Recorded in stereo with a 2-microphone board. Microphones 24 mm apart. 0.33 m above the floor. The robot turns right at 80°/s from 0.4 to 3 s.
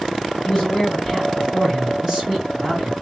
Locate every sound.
0.5 s a man speaking: 85° left, 2 m; by 2.9 s 80° right, 2 m